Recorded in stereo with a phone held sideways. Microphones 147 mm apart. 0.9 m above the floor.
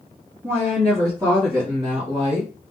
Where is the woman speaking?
20° right (ahead or behind), 1.5 m; by 2.5 s 45° right (ahead or behind), 1.0 m.